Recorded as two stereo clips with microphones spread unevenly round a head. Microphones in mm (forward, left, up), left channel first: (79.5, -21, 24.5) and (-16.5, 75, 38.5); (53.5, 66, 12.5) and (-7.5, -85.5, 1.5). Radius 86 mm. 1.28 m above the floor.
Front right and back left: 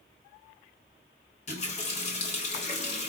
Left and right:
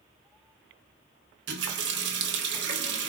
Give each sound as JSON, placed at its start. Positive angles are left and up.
{"t": 1.5, "sound": "a running tap", "azimuth_deg": -100, "distance_m": 0.7}